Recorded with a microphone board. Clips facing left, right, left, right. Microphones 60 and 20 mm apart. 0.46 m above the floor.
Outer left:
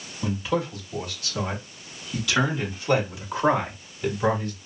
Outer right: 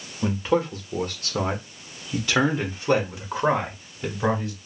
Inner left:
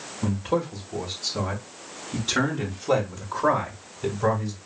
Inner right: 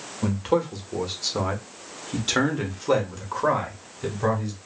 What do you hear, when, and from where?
0.2 s a man speaking: 35° right (ahead or behind), 1.3 m; by 4.6 s 15° right (ahead or behind), 1.8 m